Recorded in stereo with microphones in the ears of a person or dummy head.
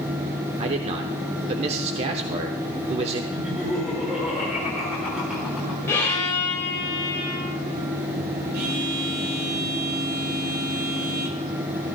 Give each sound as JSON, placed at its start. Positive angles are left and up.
{"t": 0.6, "sound": "a man speaking", "side_deg": -35, "distance_m": 1.1}
{"t": 3.3, "sound": "laughter", "side_deg": -5, "distance_m": 5.5}
{"t": 5.9, "sound": "a violin", "side_deg": 15, "distance_m": 3.5}
{"t": 8.5, "sound": "a phone buzzing", "side_deg": -55, "distance_m": 1.6}